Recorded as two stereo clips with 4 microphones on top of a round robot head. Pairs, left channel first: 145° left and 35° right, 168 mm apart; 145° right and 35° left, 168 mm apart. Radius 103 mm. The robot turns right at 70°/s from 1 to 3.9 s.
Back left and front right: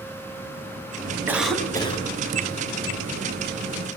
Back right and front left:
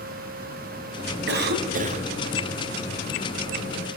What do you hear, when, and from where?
1.3 s a cough: 40° left, 4.5 m; by 2.1 s 95° left, 4.5 m